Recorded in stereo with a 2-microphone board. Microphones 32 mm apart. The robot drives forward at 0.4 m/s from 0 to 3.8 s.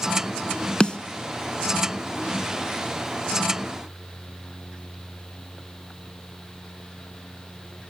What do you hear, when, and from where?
0.8 s a snare drum: 30° left (ahead or behind), 0.6 m